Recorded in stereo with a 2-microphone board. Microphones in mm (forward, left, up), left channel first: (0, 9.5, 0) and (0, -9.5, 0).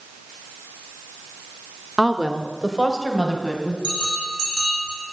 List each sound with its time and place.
2.0 s a woman speaking: 20° right (ahead or behind), 0.7 m; by 3.7 s 10° right (ahead or behind), 3 m
3.8 s a bell: 25° right (ahead or behind), 8 m